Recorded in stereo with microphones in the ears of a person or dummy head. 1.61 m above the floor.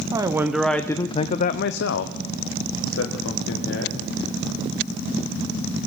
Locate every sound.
0.1 s a man speaking: 15° right (ahead or behind), 0.8 m; by 4.1 s 70° left (ahead or behind), 1.7 m